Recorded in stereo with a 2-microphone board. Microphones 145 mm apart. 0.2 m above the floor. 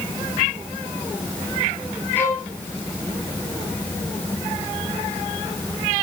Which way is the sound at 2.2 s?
15° left (ahead or behind).